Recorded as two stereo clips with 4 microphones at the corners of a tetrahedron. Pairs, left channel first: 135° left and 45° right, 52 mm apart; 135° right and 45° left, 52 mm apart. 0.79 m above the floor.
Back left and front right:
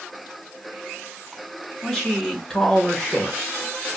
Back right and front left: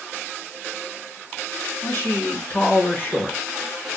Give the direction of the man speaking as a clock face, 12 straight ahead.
4 o'clock.